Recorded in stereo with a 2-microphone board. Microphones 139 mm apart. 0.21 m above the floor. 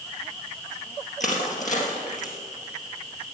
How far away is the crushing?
About 3 m.